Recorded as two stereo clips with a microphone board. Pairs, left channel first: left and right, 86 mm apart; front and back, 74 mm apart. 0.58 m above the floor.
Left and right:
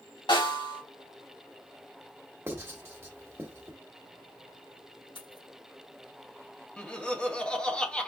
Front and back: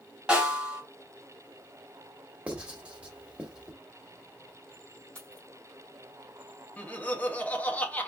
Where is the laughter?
25° left, 0.9 m.